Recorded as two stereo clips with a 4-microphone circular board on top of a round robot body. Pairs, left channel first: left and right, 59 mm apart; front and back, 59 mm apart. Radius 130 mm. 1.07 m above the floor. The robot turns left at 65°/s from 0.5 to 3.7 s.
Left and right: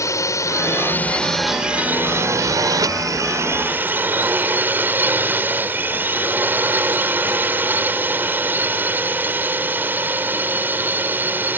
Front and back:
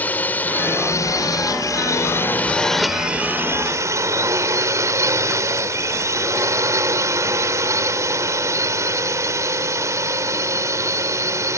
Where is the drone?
60° left; by 11.6 s 145° right.